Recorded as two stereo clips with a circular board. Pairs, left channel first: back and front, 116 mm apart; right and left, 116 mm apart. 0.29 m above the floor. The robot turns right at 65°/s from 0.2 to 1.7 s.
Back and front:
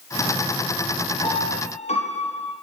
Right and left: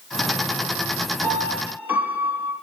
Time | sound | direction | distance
1.2 | a piano | 135° left | 6.5 m